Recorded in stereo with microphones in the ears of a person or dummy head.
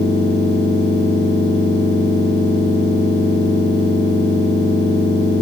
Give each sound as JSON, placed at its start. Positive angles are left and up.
{"t": 0.0, "sound": "a machine running", "side_deg": 30, "distance_m": 3.5}